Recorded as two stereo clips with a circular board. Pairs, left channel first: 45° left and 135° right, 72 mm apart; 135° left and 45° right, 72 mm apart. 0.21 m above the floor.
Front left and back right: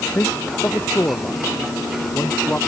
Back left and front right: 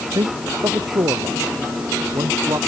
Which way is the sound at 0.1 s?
20° right.